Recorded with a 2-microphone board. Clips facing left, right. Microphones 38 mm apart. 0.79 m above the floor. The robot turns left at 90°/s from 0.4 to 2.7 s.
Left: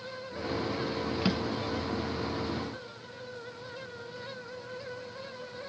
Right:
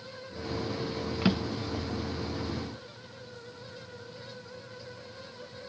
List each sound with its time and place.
1.2 s a drawer: 10° right (ahead or behind), 0.9 m; by 1.9 s 60° right (ahead or behind), 0.9 m